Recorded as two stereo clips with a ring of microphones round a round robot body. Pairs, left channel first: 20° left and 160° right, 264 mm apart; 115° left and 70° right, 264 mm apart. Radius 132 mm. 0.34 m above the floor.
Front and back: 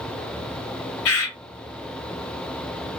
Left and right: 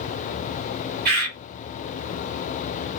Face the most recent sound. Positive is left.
turn(degrees=-15)